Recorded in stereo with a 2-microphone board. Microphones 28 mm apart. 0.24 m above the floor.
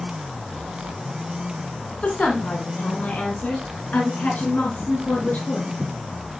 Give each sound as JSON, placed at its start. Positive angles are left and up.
{"t": 2.0, "sound": "a woman speaking", "side_deg": 55, "distance_m": 1.7}